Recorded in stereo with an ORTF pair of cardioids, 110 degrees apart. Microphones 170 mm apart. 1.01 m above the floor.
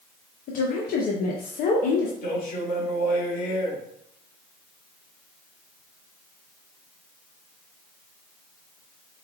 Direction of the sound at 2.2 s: 60° left.